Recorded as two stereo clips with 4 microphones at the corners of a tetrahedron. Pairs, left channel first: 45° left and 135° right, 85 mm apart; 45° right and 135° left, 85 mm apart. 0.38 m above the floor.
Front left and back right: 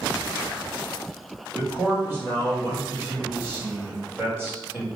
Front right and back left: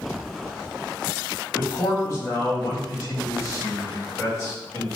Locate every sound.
1.6 s a man speaking: 80° right, 2.0 m